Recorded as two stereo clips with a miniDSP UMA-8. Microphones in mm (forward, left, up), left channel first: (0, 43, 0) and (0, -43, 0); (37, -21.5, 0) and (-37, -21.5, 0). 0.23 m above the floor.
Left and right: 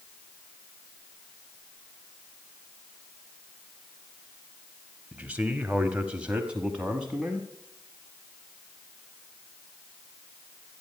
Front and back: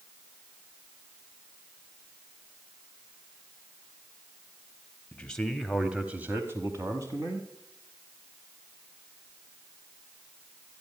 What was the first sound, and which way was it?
A man speaking, 40° right.